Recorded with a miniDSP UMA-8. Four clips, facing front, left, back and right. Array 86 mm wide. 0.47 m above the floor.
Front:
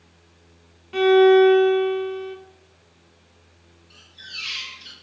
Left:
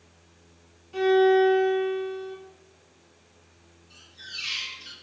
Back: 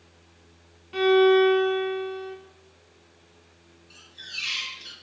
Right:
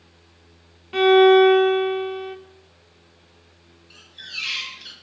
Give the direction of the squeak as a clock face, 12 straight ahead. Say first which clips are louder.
Right 4 dB, front 1 dB; 3 o'clock.